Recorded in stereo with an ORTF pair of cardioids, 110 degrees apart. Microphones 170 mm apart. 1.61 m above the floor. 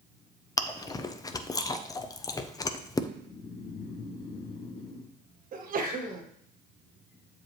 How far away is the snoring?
About 1.5 m.